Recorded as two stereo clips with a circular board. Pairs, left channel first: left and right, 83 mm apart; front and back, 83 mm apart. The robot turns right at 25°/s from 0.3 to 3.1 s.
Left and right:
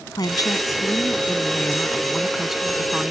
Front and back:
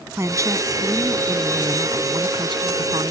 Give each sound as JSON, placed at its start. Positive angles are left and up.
{"t": 0.1, "sound": "a woman speaking", "azimuth_deg": 130}